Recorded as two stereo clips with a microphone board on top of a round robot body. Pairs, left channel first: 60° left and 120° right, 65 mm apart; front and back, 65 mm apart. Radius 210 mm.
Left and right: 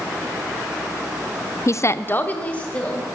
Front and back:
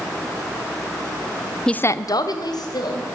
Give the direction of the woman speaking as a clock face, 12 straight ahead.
9 o'clock.